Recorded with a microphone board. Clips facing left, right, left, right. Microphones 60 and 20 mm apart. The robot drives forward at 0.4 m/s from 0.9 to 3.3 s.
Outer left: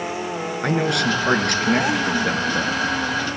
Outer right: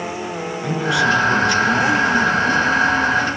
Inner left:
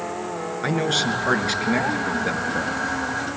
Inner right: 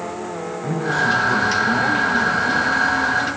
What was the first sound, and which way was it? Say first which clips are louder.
A man speaking: outer right 3 dB, inner right 2 dB; 60° left (ahead or behind).